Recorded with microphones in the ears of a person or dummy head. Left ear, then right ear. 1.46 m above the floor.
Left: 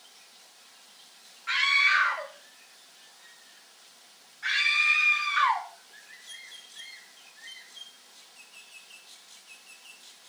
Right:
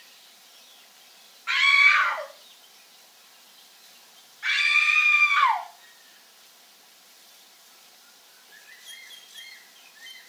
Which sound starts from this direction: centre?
A scream, at 1.5 s.